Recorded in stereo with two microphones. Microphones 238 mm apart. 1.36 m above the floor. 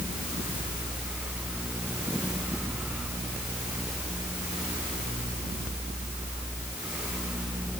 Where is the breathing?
I don't hear breathing.